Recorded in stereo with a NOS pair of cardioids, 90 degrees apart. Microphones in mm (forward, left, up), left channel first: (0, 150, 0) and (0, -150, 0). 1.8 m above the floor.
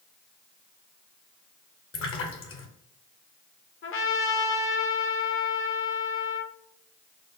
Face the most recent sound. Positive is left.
turn(degrees=45)